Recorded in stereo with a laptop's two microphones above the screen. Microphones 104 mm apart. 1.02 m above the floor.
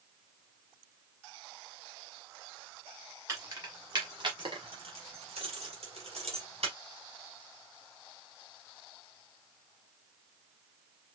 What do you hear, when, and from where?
3.3 s keys jangling: 30° right (ahead or behind), 1.5 m; by 6.8 s 85° right, 2 m